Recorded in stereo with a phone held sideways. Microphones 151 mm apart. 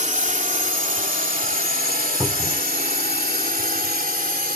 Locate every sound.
0.0 s a drone: 55° right (ahead or behind); by 4.6 s 80° right
2.2 s a cupboard door: 10° right (ahead or behind)